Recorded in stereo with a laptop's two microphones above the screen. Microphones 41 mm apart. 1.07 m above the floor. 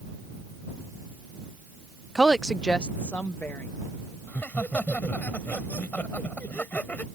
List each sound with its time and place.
2.1 s a woman speaking: 10° right (ahead or behind); by 3.7 s 40° left (ahead or behind)
4.3 s laughter: 40° left (ahead or behind)